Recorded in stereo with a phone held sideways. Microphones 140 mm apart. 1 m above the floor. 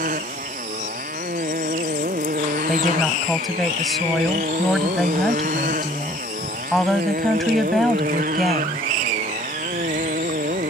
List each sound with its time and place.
0.0 s a motorcycle: 75° right (ahead or behind); by 10.7 s 90° right
2.7 s a woman speaking: centre (ahead or behind)